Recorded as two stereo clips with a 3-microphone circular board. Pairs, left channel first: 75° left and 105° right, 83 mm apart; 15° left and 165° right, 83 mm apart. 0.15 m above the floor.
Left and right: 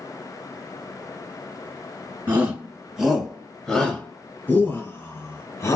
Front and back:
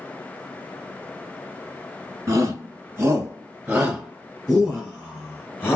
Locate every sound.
2.3 s a shout: 150° right, 1.9 m; by 5.8 s 70° left, 2 m